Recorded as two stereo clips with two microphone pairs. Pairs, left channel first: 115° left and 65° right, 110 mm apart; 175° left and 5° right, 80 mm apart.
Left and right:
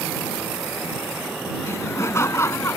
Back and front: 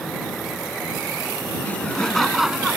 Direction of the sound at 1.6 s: 145° left.